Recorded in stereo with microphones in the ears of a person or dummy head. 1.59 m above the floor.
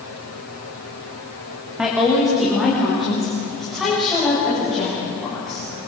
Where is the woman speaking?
Centre (ahead or behind), 3 m; by 5.6 s 5° left (ahead or behind), 9 m.